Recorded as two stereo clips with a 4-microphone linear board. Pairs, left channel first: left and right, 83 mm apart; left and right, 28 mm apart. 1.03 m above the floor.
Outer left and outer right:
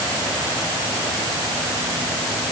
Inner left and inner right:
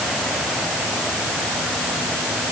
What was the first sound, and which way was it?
Only background noise.